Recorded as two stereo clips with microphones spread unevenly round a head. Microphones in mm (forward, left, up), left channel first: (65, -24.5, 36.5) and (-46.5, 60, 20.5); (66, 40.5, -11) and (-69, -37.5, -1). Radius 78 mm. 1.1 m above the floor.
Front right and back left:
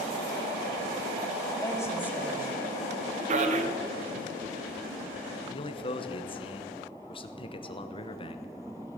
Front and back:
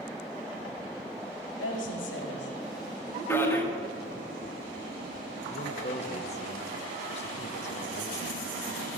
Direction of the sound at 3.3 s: 105° left.